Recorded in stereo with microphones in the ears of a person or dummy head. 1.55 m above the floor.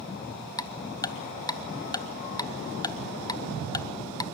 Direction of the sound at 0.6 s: 20° left (ahead or behind).